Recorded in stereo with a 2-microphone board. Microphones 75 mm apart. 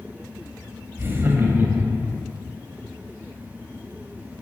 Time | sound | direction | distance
1.0 | laughter | 30° right (ahead or behind) | 1.1 m